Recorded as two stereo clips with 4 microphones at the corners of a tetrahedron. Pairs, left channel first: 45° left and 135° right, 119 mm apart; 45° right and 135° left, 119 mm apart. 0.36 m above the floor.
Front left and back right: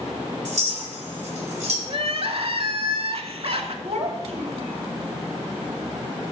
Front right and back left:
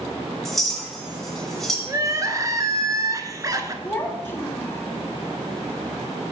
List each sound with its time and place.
0.5 s a clink: 130° right, 1.6 m
1.9 s crying: 165° right, 0.6 m
3.8 s a child speaking: 115° right, 1.2 m